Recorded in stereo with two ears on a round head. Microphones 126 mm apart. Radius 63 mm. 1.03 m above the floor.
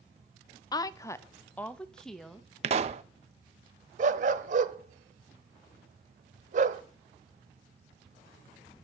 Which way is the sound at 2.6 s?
45° right (ahead or behind).